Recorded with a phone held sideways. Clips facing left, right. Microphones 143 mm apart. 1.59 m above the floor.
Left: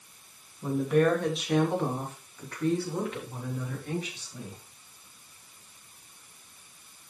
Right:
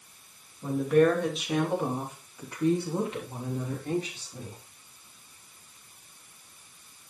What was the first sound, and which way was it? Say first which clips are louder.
A woman speaking: right 2 dB; 5° left (ahead or behind).